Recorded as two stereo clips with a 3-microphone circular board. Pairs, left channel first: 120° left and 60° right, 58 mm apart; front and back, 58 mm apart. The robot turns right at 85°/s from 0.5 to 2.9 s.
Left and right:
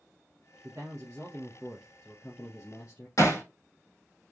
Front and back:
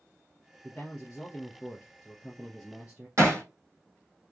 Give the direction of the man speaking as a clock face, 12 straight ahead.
3 o'clock.